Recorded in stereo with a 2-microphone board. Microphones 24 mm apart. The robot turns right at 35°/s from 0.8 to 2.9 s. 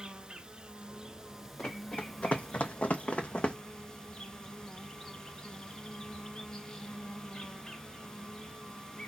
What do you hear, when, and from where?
0.0 s an insect: 40° right, 0.9 m; by 9.1 s 30° left, 0.9 m
1.6 s running footsteps: 85° left, 1.3 m; by 3.6 s 50° left (ahead or behind), 0.9 m